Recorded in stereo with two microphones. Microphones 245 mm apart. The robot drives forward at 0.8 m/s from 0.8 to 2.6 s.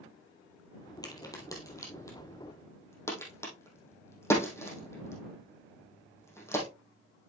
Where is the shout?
No shout in this recording.